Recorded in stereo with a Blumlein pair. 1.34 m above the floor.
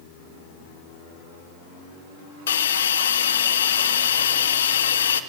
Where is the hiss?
60° left, 0.8 m.